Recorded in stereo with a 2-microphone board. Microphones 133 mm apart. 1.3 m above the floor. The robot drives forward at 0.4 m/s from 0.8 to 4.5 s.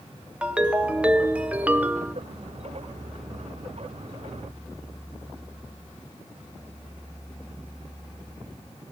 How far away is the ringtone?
About 1.2 m.